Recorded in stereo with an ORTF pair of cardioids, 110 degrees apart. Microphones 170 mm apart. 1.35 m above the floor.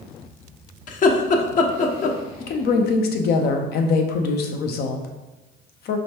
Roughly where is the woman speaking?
Ahead left.